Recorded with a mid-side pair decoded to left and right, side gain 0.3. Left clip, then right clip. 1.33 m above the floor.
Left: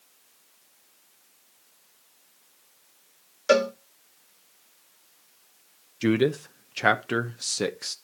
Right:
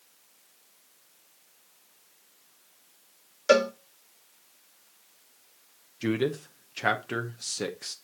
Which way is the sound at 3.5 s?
5° right.